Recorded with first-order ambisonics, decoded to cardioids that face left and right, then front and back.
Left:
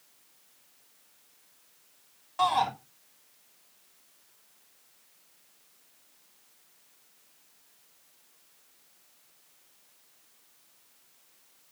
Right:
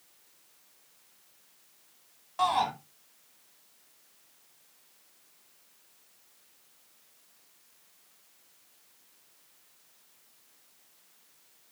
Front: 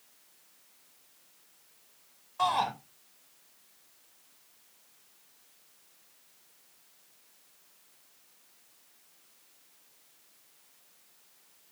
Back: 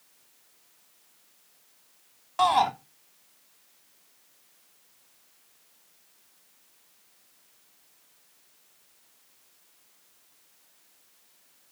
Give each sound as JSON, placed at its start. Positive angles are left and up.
{"t": 2.4, "sound": "a shout", "azimuth_deg": 175, "distance_m": 3.0}